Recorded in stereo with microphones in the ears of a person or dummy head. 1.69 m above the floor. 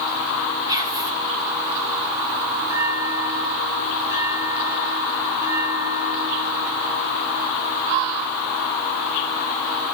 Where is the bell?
15° right (ahead or behind), 2 m.